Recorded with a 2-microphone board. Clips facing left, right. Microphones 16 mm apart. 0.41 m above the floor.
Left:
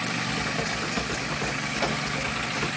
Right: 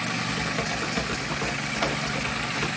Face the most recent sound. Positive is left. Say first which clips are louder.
# even
turn(degrees=-5)  # may be behind; listen again after turning